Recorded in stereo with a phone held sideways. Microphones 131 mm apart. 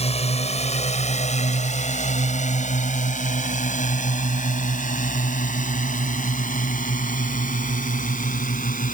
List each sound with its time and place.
0.0 s a drone: 50° left (ahead or behind); by 8.9 s 85° left